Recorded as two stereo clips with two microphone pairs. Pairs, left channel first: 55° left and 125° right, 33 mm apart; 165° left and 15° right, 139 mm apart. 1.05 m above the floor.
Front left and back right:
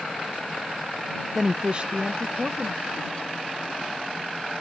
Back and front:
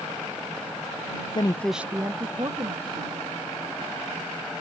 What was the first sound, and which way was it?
A woman speaking, 170° left.